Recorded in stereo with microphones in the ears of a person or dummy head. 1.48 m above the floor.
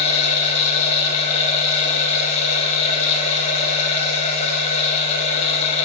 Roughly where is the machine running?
Left.